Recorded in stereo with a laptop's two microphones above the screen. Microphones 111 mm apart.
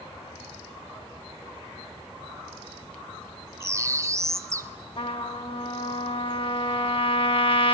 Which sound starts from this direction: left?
A trumpet, at 5.0 s.